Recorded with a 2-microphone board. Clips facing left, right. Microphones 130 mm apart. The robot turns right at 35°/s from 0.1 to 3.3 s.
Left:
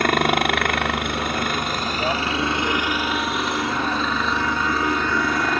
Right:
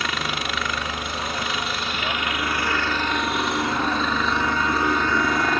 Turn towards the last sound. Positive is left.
turn(degrees=180)